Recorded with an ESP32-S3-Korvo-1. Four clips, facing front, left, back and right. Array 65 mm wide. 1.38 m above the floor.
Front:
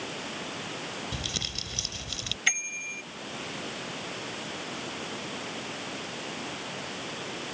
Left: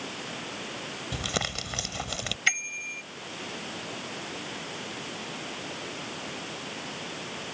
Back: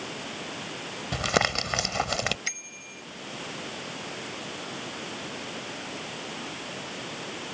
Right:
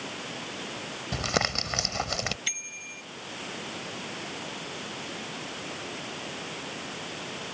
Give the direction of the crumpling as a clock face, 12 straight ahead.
5 o'clock.